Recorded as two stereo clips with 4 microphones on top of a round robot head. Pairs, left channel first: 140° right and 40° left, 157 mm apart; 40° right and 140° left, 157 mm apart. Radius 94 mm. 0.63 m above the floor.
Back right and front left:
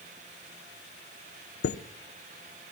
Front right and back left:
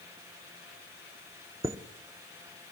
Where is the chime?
145° right, 0.6 m.